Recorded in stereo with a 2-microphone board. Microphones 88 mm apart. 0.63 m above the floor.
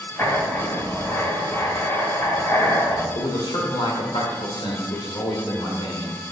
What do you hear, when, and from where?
0.2 s writing: 30° left (ahead or behind), 2.5 m
3.1 s a man speaking: 65° left (ahead or behind), 2.0 m